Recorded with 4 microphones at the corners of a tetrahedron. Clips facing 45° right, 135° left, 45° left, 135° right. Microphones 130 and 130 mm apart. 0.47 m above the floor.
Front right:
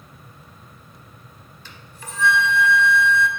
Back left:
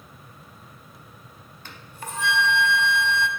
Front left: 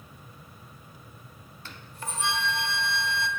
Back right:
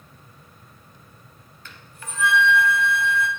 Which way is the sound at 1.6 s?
100° left.